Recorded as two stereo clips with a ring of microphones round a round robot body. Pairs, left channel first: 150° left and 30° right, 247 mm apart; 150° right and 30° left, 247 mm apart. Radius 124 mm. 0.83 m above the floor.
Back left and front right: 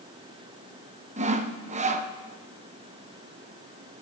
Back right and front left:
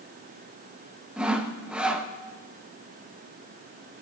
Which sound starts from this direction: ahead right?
Sawing, at 1.2 s.